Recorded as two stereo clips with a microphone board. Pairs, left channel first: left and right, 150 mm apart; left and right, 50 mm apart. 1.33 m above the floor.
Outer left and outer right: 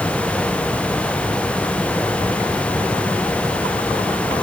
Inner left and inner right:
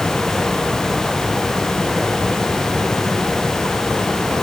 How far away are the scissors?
I don't hear scissors.